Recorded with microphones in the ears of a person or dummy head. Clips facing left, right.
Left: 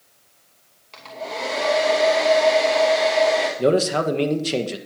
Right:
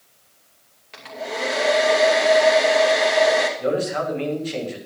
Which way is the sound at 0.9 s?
20° right (ahead or behind).